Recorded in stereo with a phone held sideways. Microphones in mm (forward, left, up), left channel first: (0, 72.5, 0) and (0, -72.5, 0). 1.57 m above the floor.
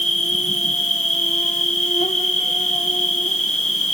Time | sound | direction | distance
0.0 | an insect | 50° left (ahead or behind) | 2 m